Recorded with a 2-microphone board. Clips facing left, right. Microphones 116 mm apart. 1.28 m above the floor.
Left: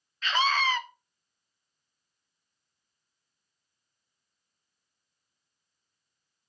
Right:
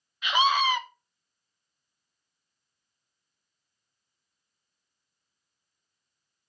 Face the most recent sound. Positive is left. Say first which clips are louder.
# right 3 dB
turn(degrees=-15)  # may be behind; listen again after turning